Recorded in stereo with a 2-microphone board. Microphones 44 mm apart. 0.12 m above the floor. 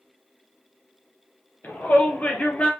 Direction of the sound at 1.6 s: 45° left (ahead or behind).